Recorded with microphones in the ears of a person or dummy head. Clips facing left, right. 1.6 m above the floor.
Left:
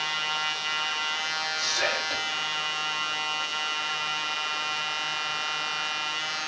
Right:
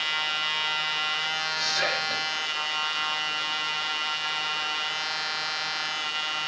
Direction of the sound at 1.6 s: 20° right (ahead or behind).